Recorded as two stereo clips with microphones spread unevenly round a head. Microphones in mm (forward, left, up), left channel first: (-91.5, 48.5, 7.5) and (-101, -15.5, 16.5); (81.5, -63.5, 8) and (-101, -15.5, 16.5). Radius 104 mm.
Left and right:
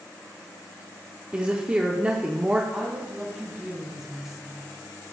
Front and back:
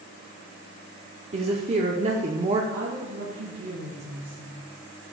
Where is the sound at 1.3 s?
160° right, 0.7 m.